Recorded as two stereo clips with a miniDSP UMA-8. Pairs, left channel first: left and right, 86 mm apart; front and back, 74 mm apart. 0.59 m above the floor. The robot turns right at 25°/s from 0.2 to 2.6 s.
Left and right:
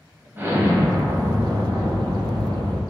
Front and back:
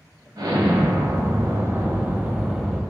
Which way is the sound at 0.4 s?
155° right.